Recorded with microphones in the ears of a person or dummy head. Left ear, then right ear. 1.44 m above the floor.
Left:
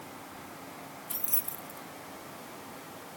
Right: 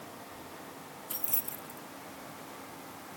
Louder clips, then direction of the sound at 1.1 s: Right 1 dB; 5° right (ahead or behind).